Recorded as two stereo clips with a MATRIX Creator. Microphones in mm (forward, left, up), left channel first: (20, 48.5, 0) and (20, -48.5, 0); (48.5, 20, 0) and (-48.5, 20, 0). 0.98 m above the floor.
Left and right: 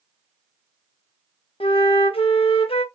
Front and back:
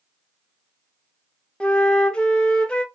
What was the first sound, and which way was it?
A flute, 80° left.